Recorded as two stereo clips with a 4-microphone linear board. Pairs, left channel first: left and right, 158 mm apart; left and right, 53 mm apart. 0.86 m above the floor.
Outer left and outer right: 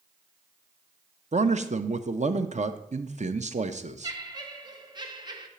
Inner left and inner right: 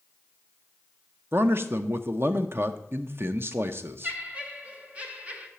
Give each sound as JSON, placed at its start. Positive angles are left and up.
{"t": 1.3, "sound": "a man speaking", "side_deg": -50, "distance_m": 0.6}
{"t": 4.0, "sound": "laughter", "side_deg": -25, "distance_m": 1.3}